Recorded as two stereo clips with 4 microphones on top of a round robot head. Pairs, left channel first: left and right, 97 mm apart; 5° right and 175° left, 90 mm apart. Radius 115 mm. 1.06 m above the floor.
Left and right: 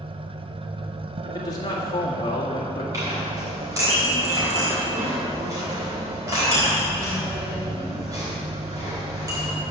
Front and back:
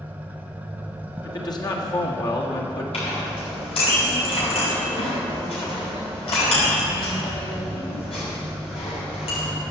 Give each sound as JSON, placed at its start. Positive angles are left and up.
{"t": 0.0, "sound": "an engine running", "azimuth_deg": -115, "distance_m": 0.8}
{"t": 1.2, "sound": "a man speaking", "azimuth_deg": 35, "distance_m": 1.8}
{"t": 2.9, "sound": "a clink", "azimuth_deg": -25, "distance_m": 4.5}